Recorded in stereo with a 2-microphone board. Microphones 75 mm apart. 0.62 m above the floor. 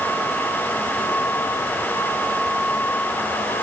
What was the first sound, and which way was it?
Only background noise.